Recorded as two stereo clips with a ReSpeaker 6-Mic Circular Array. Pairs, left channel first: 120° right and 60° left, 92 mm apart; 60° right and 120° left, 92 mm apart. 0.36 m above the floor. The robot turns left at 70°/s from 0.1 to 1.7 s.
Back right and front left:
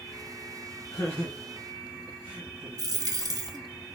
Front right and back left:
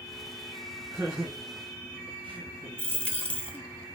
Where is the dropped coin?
20° left, 0.8 m.